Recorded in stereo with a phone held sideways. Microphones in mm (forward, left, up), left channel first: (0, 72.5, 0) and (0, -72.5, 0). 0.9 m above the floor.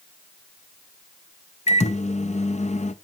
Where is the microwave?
50° left (ahead or behind), 0.6 m.